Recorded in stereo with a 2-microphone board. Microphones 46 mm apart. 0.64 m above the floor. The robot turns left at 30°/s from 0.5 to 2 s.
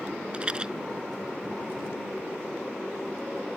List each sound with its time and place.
0.3 s a rattle: 20° right (ahead or behind); by 0.7 s 15° right (ahead or behind)